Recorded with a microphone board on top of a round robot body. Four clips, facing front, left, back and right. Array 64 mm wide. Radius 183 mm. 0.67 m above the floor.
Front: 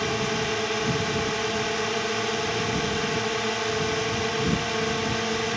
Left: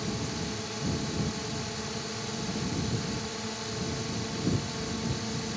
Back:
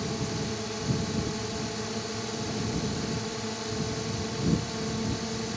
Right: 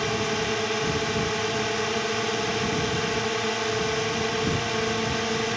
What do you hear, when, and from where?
0.0 s a drone: 45° right